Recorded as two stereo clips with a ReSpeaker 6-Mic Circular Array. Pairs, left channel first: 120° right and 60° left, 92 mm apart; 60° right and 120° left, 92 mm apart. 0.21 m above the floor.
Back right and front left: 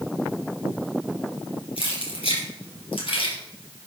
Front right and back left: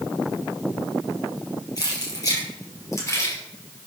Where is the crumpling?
No crumpling in this recording.